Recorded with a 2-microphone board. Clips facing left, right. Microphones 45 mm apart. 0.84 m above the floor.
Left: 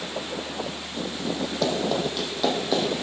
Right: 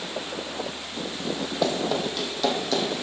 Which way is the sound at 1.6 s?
10° right (ahead or behind).